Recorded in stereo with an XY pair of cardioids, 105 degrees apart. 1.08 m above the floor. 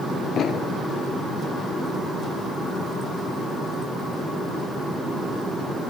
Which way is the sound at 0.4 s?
60° left.